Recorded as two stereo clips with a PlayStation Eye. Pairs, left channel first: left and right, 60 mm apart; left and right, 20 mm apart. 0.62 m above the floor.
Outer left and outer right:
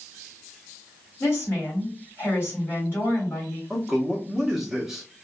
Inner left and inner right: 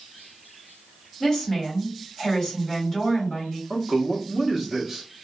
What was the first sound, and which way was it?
A woman speaking, 50° left (ahead or behind).